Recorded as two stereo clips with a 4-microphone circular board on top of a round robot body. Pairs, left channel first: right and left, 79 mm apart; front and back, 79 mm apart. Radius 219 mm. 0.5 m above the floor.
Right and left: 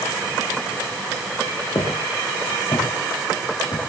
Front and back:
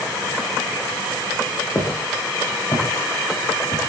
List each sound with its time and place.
1.8 s footsteps: 50° right, 5.5 m